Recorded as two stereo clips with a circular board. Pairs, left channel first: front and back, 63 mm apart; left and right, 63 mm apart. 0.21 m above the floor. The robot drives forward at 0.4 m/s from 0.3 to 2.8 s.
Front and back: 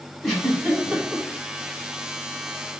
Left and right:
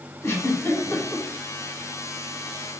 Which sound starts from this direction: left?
A giggle, at 0.2 s.